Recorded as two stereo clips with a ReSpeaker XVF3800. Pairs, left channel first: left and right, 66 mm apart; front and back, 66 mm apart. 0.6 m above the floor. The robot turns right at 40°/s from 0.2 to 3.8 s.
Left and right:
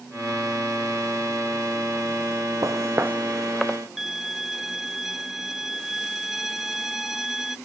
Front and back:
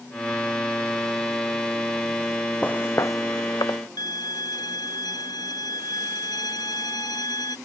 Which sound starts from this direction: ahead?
A violin, at 4.0 s.